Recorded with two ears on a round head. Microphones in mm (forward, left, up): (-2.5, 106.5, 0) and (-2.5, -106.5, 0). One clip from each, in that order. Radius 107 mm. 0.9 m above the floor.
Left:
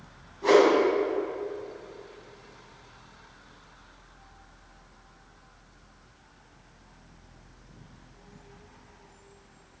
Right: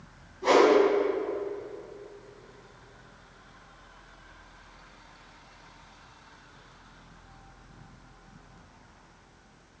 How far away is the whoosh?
About 1.7 m.